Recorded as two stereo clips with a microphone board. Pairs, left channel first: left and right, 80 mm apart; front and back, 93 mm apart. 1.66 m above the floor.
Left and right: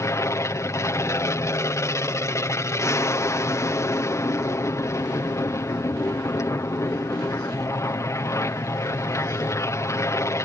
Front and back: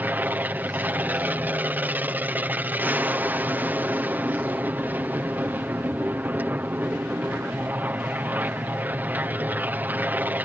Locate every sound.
0.0 s an aircraft: 120° left